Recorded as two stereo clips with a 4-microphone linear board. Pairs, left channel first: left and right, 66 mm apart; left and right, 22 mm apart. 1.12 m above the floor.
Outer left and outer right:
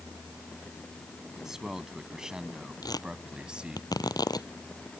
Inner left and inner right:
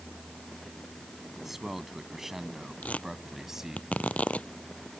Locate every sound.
1.4 s a man speaking: 10° right (ahead or behind); by 3.8 s 15° right (ahead or behind)
2.8 s tearing paper: 75° left (ahead or behind)